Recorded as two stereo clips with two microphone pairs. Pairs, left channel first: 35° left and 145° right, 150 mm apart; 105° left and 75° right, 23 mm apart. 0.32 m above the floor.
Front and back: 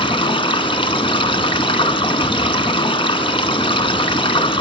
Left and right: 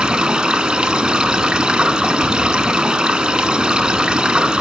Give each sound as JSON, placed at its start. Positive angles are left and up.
{"t": 0.0, "sound": "running water", "azimuth_deg": -20, "distance_m": 1.1}